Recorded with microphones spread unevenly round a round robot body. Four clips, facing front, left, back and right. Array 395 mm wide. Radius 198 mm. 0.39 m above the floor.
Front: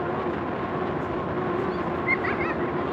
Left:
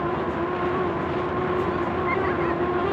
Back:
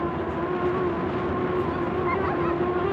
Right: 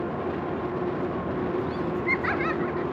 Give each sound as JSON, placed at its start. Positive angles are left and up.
{"t": 1.7, "sound": "laughter", "azimuth_deg": -85}